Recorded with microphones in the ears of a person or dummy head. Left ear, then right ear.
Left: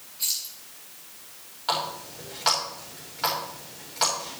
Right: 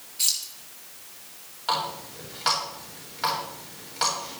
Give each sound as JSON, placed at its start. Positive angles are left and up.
{"t": 0.2, "sound": "keys jangling", "side_deg": -60, "distance_m": 4.0}
{"t": 1.7, "sound": "a running tap", "side_deg": -5, "distance_m": 4.0}